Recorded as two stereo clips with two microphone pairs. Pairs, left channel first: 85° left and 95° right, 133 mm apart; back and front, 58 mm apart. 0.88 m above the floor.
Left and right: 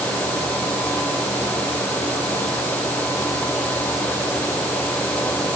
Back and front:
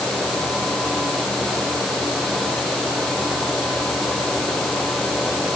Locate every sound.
Only background noise.